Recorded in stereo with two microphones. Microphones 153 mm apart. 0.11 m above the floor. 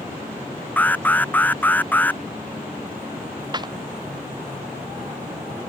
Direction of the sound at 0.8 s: 10° left (ahead or behind).